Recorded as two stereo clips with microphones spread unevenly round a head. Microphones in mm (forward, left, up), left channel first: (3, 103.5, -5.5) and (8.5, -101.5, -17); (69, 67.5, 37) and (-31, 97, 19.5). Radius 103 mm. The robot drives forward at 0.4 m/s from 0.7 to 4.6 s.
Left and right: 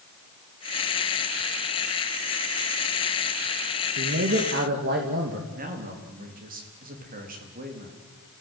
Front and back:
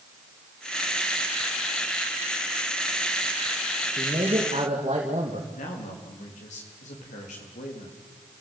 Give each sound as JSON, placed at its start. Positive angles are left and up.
{"t": 4.0, "sound": "a man speaking", "azimuth_deg": -130, "distance_m": 2.5}
{"t": 5.5, "sound": "a man speaking", "azimuth_deg": -40, "distance_m": 4.0}